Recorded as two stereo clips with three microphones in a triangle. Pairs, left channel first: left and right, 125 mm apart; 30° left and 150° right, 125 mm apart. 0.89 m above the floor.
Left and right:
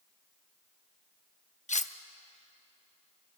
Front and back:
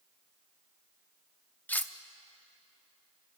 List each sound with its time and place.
1.7 s cutlery clinking: 105° left, 0.6 m